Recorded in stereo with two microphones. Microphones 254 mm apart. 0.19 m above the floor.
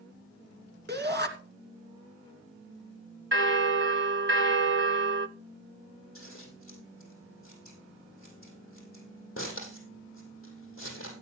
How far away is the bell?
About 0.6 m.